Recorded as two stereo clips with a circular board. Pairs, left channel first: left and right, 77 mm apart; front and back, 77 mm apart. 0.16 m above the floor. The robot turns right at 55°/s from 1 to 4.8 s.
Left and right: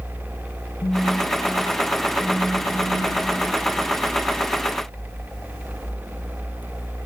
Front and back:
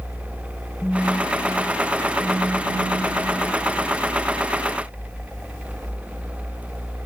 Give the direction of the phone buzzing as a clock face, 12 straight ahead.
9 o'clock.